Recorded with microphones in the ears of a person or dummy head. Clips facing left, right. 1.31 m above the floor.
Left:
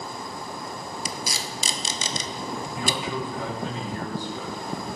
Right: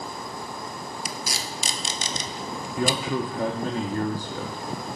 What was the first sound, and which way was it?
Tape being pulled, 65° left (ahead or behind).